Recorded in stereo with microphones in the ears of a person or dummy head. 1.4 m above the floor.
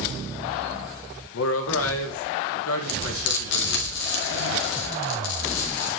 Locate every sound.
1.3 s a man speaking: 90° left, 1.4 m
2.9 s frying: 65° left (ahead or behind), 1.5 m